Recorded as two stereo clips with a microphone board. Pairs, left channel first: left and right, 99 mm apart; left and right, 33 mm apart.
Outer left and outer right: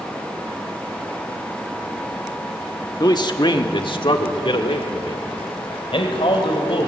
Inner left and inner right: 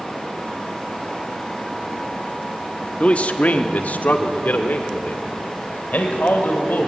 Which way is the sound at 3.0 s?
40° left (ahead or behind).